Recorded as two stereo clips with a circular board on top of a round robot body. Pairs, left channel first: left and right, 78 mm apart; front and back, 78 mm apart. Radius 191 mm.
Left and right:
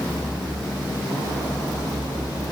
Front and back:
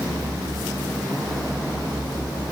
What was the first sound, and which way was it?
Only background noise.